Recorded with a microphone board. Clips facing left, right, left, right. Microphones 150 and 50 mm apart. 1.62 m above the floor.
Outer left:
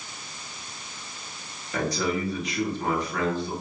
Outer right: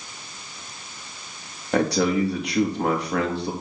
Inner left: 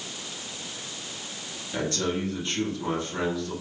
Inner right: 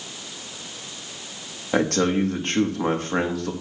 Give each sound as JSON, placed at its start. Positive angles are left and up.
{"t": 1.7, "sound": "a man speaking", "side_deg": -70, "distance_m": 2.0}